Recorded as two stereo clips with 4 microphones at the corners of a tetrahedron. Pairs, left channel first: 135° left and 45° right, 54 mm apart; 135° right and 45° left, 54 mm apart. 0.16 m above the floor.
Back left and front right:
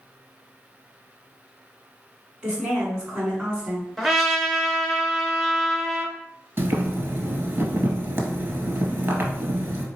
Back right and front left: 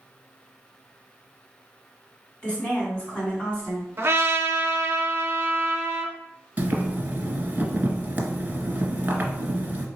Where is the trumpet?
40° left, 0.7 m.